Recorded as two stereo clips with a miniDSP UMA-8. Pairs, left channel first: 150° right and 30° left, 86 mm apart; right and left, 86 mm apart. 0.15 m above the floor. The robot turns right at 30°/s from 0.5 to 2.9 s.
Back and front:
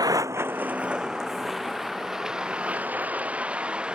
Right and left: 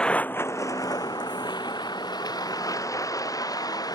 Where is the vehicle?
10° right; by 4.0 s 50° right.